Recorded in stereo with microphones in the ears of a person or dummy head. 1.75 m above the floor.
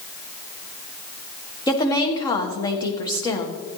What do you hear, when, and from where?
1.7 s a woman speaking: 20° left (ahead or behind), 1.5 m